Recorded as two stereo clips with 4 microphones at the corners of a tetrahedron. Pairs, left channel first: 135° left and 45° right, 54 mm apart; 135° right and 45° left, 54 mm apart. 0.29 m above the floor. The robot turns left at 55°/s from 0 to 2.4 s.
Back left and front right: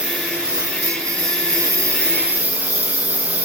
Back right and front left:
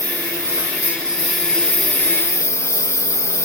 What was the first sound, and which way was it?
A lawn mower, 25° left.